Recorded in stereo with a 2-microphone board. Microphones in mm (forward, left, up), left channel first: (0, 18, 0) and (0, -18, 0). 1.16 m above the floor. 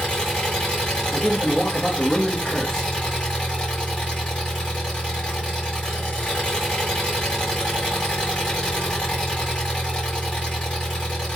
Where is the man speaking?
10° left (ahead or behind), 0.9 m.